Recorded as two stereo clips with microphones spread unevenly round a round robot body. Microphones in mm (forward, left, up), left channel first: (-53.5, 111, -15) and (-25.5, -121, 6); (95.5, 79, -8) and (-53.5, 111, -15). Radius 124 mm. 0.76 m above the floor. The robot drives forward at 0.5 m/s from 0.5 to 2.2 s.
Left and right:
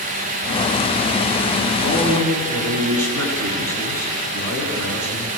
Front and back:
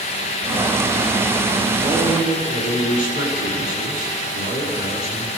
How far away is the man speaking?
About 6.5 m.